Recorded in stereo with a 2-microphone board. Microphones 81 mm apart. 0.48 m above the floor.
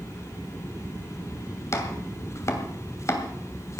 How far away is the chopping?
About 2.5 m.